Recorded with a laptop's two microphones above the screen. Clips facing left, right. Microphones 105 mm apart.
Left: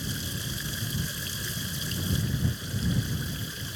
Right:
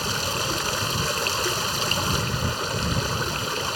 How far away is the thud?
I don't hear a thud.